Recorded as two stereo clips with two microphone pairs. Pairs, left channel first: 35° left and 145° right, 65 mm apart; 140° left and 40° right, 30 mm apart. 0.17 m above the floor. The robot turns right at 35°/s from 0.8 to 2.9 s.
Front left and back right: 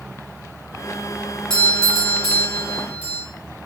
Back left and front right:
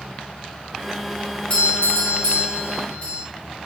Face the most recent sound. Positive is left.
turn(degrees=160)